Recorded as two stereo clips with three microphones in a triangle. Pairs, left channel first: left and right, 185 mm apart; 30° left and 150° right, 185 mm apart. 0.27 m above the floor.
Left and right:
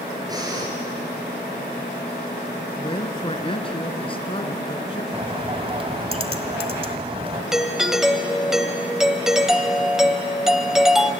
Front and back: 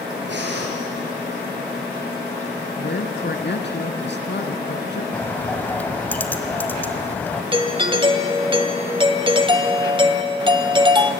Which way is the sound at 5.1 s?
45° right.